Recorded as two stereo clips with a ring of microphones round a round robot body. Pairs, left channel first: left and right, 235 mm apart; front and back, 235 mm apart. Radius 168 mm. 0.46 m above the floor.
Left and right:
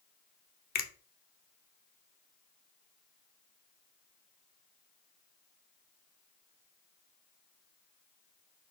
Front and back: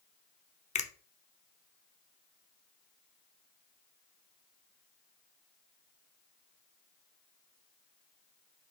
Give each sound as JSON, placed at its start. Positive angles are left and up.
{"t": 0.8, "sound": "a finger snap", "azimuth_deg": 50, "distance_m": 0.7}